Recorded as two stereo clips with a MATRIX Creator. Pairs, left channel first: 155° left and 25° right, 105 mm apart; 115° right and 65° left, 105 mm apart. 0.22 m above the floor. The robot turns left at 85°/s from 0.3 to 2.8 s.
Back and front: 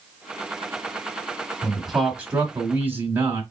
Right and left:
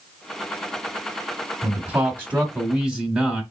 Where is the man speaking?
85° left, 1.2 m; by 3.4 s 15° right, 1.2 m.